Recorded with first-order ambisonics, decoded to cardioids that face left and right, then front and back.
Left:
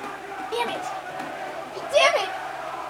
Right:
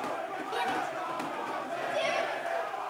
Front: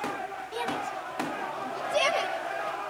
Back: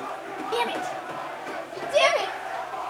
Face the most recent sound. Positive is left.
turn(degrees=115)